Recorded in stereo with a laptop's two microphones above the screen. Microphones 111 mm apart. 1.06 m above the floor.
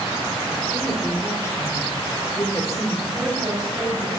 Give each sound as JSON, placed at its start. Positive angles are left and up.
{"t": 0.7, "sound": "a woman speaking", "side_deg": 25, "distance_m": 3.5}
{"t": 3.1, "sound": "a woman speaking", "side_deg": -35, "distance_m": 3.0}